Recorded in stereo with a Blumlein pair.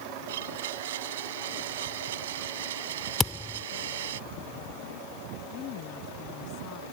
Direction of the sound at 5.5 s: 40° left.